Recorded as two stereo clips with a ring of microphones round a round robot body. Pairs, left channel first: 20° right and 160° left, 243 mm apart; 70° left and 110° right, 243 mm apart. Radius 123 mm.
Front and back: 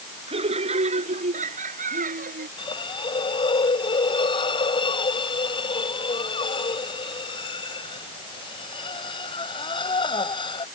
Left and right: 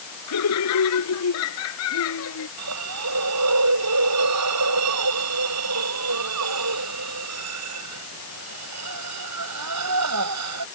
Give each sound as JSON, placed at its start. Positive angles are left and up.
{"t": 0.3, "sound": "laughter", "azimuth_deg": 90}
{"t": 2.6, "sound": "a hiss", "azimuth_deg": -95}